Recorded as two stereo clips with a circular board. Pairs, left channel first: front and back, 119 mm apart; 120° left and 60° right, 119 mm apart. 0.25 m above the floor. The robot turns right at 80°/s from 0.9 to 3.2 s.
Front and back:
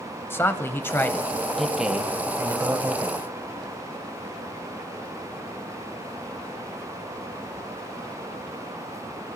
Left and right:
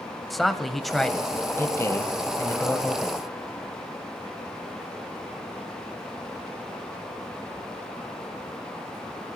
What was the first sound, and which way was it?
A man speaking, 30° left.